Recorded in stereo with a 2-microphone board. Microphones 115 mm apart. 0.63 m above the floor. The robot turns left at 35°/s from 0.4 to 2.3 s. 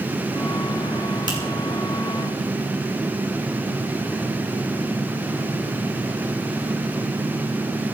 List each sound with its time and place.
1.3 s a finger snap: 40° right (ahead or behind), 7 m; by 1.4 s 45° right (ahead or behind), 7 m